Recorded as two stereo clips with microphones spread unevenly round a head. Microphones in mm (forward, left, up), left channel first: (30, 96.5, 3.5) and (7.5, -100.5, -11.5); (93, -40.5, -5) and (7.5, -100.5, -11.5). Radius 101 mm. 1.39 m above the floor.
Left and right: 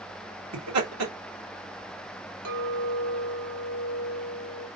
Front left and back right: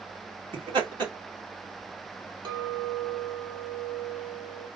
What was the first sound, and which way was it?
Laughter, 105° right.